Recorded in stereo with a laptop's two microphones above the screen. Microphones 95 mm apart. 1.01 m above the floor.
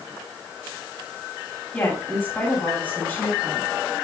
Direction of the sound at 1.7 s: 15° left (ahead or behind).